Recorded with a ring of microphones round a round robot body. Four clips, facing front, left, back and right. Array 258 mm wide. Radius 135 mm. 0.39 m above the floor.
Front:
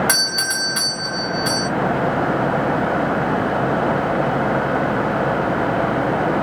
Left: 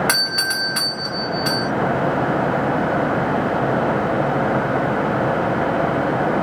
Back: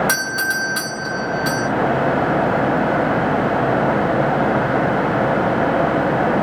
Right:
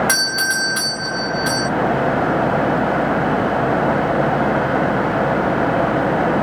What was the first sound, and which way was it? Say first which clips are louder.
A doorbell: right 3 dB, back 3 dB; 85° left.